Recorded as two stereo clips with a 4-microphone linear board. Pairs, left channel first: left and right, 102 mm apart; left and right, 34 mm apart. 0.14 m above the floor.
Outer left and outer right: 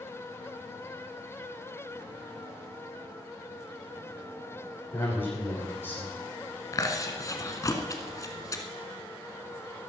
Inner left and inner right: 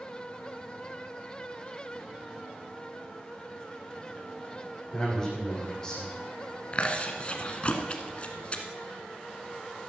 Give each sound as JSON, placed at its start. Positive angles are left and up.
{"t": 4.9, "sound": "a man speaking", "side_deg": 20, "distance_m": 8.5}
{"t": 6.7, "sound": "chewing", "side_deg": 35, "distance_m": 1.3}